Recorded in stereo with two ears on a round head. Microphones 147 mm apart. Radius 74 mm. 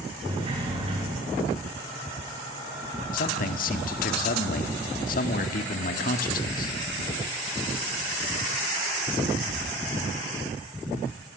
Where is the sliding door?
30° right (ahead or behind), 9 m.